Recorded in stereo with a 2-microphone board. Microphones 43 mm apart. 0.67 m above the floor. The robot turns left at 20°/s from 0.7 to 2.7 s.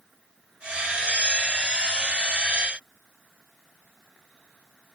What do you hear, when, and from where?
Only background noise.